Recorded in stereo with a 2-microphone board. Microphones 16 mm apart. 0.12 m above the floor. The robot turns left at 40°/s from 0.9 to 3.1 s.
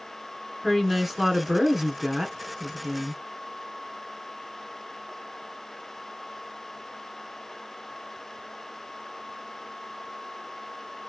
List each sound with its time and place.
0.6 s a woman speaking: 10° right (ahead or behind), 1.3 m; by 3.2 s 20° right (ahead or behind), 1.3 m